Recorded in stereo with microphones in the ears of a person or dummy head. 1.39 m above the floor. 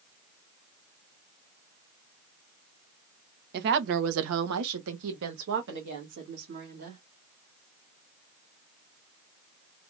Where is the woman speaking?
60° right (ahead or behind), 0.9 m; by 7.0 s 40° right (ahead or behind), 2.5 m.